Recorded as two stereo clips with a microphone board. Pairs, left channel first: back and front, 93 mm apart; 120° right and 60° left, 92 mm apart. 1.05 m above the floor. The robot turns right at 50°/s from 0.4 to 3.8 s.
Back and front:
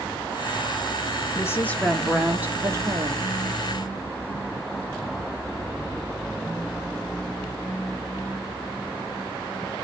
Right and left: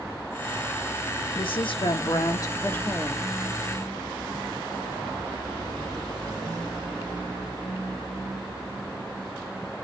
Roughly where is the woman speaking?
Behind right.